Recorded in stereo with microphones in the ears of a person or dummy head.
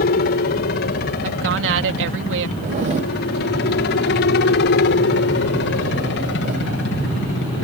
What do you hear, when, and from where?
0.0 s a helicopter: 55° left (ahead or behind); by 7.6 s 60° left (ahead or behind)
1.2 s a woman speaking: 75° right (ahead or behind)
2.6 s a zipper: 40° right (ahead or behind)